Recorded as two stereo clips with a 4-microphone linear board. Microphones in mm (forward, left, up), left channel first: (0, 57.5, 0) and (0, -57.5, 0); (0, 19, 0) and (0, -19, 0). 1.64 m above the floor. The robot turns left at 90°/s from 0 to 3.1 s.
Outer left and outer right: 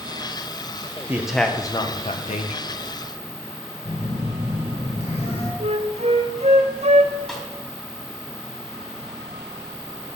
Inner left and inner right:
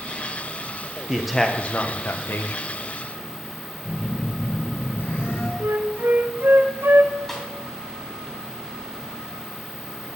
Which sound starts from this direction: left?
A phone buzzing, at 3.9 s.